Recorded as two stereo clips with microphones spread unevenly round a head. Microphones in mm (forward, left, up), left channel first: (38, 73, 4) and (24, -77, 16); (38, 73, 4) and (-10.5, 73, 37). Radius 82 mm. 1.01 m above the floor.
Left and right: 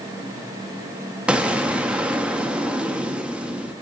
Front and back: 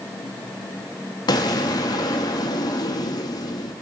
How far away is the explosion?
About 0.5 m.